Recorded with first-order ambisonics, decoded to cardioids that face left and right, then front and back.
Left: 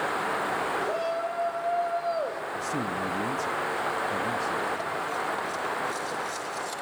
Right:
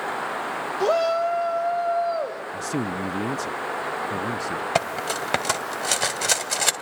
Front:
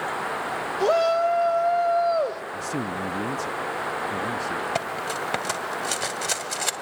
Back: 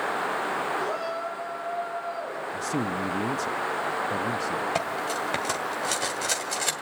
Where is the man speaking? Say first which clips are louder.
Right 3 dB, even; 95° right, 0.5 m.